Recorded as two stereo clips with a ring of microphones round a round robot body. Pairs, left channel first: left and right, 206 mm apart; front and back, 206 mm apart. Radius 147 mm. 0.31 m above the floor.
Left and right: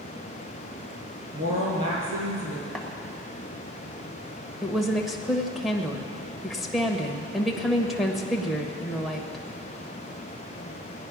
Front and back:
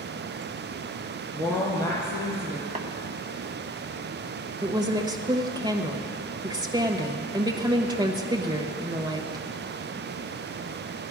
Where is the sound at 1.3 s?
125° right, 7 m.